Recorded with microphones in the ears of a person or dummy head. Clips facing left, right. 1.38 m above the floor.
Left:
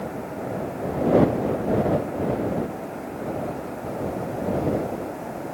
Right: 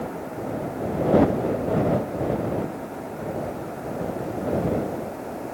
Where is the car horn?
I don't hear a car horn.